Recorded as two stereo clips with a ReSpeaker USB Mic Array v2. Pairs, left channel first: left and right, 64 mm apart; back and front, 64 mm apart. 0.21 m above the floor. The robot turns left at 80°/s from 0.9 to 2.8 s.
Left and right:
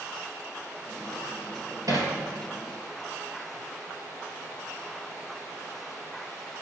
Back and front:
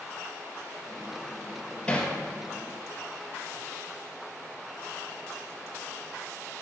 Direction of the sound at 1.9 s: 105° right.